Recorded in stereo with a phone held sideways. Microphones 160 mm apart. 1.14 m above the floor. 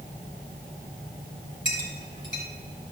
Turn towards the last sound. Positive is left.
turn(degrees=-80)